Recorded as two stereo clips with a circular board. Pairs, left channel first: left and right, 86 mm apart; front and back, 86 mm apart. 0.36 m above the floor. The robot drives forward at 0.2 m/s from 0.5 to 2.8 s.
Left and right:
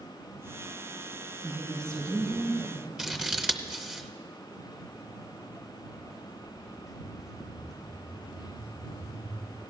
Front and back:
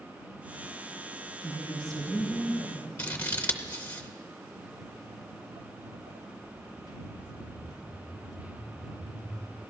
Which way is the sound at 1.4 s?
140° right.